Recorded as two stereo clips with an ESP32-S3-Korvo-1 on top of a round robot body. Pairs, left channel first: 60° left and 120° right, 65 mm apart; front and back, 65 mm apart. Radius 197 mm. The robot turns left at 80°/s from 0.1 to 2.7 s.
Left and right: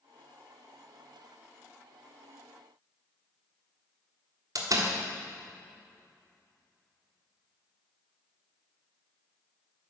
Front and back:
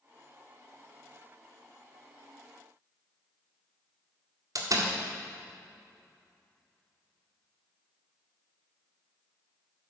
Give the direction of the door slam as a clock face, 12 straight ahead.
5 o'clock.